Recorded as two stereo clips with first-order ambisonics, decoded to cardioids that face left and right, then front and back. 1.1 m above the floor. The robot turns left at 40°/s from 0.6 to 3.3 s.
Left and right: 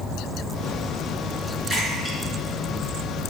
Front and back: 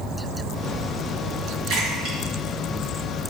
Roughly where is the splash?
Behind.